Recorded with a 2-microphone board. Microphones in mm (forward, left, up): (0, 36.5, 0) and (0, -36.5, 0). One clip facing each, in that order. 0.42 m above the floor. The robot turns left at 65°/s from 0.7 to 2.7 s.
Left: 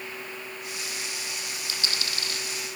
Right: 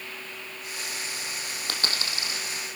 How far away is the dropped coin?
About 3 m.